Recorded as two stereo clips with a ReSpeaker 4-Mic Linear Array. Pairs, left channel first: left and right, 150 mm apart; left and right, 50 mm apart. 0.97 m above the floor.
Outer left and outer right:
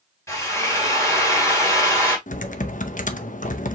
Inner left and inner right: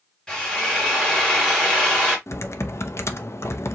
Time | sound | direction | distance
0.3 | a drill | 15° left (ahead or behind) | 2 m
2.3 | typing on a keyboard | 55° left (ahead or behind) | 0.6 m